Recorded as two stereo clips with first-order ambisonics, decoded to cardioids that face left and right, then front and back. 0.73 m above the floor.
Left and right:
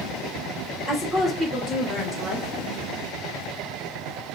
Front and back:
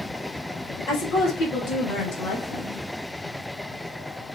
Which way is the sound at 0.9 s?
15° right.